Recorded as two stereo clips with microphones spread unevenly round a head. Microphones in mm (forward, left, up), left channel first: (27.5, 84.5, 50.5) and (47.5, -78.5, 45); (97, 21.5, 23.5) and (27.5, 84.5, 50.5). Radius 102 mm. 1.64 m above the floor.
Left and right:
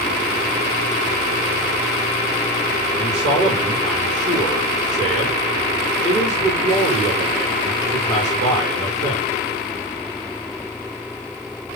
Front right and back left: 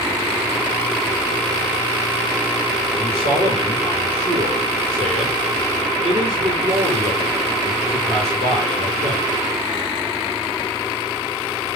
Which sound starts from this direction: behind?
A man speaking, at 3.0 s.